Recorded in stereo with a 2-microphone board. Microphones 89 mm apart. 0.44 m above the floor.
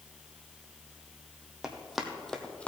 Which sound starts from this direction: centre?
Running footsteps, at 1.6 s.